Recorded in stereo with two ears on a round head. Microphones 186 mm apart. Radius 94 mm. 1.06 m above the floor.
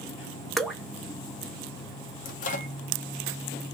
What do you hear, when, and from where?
0.6 s dripping: centre (ahead or behind), 0.6 m
2.2 s a microwave: 35° left (ahead or behind), 0.7 m